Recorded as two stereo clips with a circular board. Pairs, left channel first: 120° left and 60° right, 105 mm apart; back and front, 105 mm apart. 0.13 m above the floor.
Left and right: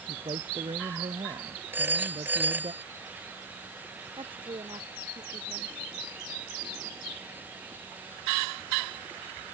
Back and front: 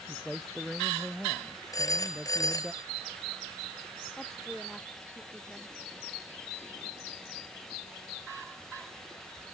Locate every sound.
0.1 s a man speaking: 90° right
1.7 s a phone ringing: 130° right
4.2 s a woman speaking: 95° right